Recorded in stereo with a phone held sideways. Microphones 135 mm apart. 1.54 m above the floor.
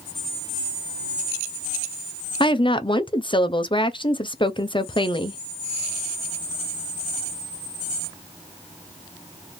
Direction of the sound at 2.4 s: 35° left (ahead or behind).